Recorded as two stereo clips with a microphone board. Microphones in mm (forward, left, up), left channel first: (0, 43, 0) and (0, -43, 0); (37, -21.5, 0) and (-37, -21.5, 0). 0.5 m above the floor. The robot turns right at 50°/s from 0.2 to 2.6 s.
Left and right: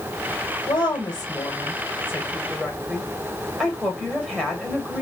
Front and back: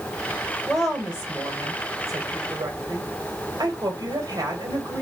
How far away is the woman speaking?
About 1.6 m.